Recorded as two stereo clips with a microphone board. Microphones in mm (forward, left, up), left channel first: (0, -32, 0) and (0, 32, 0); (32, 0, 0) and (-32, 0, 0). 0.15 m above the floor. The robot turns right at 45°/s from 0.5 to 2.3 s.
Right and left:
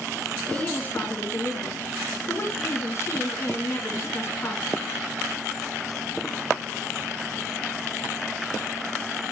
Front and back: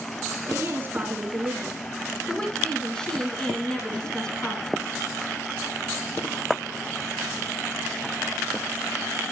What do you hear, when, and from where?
0.5 s a woman speaking: 150° right, 1.7 m; by 5.0 s 70° right, 1.7 m